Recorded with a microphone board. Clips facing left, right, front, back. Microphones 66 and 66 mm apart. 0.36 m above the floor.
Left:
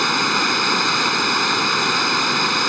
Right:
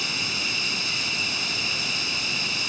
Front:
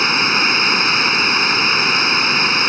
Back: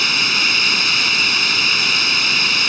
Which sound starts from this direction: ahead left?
Running water, at 0.0 s.